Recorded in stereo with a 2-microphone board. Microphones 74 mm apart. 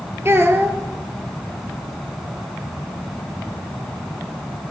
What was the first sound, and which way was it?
A child speaking, 35° right (ahead or behind).